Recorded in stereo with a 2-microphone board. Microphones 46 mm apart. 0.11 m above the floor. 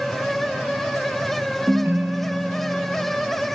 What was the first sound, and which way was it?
A ringtone, 60° right (ahead or behind).